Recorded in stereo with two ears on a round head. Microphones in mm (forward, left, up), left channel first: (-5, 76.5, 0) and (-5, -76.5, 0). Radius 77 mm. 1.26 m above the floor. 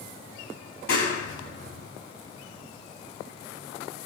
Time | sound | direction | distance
0.9 | a clap | 90° left | 9.5 m